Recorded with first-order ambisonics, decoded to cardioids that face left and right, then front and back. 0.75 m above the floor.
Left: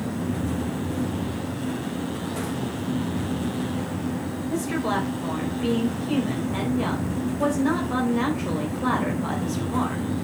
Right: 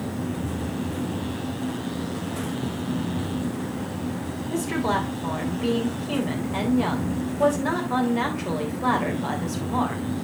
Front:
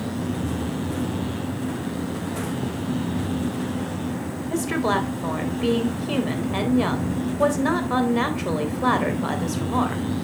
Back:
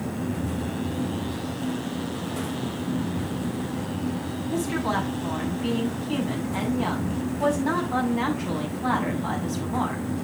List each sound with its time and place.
4.5 s a woman speaking: 5° right, 3.5 m